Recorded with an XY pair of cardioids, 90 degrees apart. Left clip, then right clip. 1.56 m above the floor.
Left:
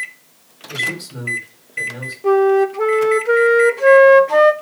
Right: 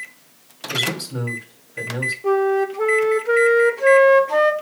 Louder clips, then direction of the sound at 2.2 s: Left 6 dB; 20° left.